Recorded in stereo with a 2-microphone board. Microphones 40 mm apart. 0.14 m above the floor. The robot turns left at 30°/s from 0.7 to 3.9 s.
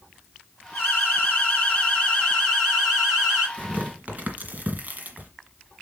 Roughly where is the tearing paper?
Right.